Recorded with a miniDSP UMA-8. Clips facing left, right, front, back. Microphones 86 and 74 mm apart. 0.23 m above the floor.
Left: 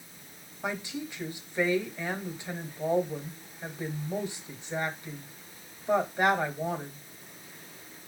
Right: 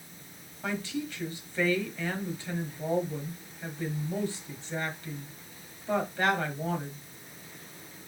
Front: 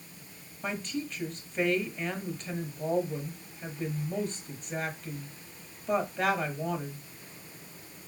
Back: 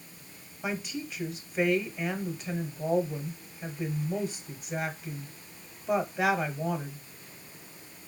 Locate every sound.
0.6 s a woman speaking: 110° left, 0.9 m